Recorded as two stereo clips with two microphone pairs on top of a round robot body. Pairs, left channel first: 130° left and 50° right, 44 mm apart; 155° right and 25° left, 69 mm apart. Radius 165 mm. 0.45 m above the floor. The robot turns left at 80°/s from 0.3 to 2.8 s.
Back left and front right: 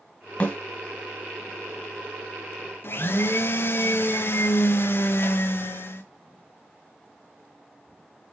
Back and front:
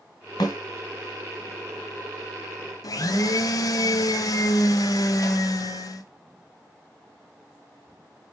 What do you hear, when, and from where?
0.4 s a snare drum: 175° right, 2.5 m; by 0.6 s 175° left, 2.5 m
2.8 s a blender: 170° left, 0.7 m